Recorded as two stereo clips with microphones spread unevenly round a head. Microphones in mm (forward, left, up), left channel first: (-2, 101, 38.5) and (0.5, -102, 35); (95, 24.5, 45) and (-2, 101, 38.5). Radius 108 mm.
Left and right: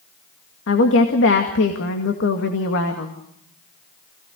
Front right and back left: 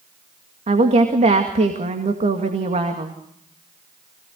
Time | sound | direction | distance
0.7 | a woman speaking | 120° left | 2 m